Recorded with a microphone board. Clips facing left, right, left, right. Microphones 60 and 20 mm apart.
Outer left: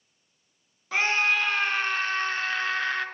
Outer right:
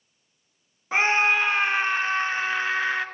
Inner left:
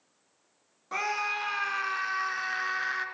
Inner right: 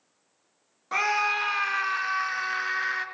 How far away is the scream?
About 1.7 m.